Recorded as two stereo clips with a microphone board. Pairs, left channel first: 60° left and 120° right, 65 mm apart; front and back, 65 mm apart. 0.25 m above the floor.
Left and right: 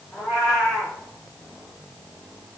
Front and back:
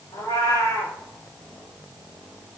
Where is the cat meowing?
25° right, 5 m.